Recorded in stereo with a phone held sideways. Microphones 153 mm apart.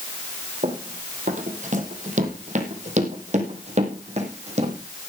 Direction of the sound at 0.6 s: 60° right (ahead or behind).